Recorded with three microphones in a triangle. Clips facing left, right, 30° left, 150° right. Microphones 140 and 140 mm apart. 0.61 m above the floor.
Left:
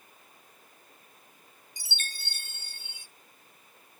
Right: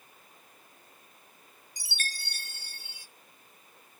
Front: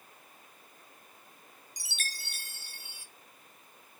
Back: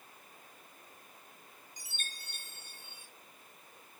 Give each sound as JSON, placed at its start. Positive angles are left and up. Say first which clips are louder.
{"t": 1.8, "sound": "a chime", "louder": "right 3 dB, front 6 dB", "azimuth_deg": 25, "distance_m": 0.7}